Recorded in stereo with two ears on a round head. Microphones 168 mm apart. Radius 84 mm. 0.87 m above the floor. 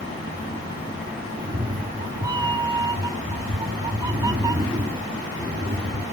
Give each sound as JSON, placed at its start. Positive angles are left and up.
{"t": 1.4, "sound": "a cat meowing", "side_deg": -20, "distance_m": 0.6}